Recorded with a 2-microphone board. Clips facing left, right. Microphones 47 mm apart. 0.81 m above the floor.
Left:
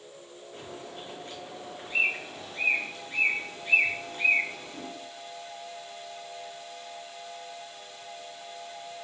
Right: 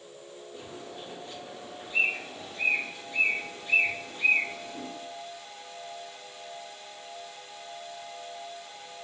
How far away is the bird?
About 1.8 m.